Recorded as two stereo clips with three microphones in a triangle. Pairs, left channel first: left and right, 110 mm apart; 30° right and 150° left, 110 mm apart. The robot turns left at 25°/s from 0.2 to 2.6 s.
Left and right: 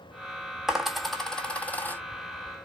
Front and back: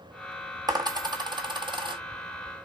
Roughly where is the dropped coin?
Behind.